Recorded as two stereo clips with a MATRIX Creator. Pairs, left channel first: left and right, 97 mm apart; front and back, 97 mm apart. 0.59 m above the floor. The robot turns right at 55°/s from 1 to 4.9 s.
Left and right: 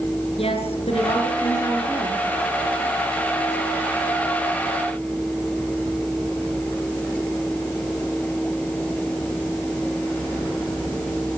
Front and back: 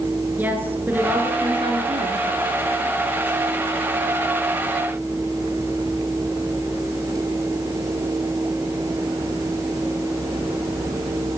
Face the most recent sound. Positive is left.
turn(degrees=-35)